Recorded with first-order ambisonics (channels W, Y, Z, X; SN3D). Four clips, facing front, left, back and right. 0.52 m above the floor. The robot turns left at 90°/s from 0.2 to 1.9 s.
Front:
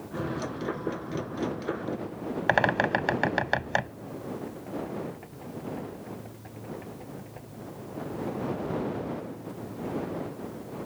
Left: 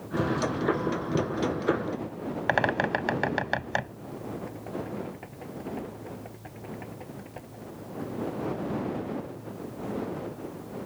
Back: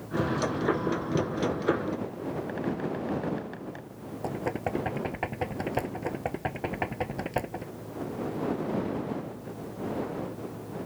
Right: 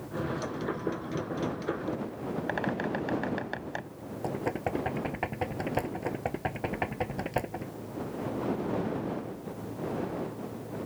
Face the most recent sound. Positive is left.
turn(degrees=-135)